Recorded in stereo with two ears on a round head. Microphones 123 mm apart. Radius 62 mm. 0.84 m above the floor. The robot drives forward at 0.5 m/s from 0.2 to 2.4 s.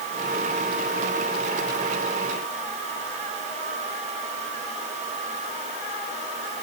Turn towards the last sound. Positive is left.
No sound to turn to.